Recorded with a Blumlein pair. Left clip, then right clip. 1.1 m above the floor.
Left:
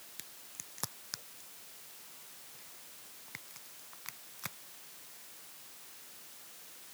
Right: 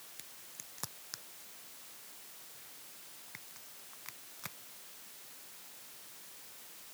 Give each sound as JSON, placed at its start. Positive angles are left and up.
{"t": 0.2, "sound": "a crack", "azimuth_deg": 10}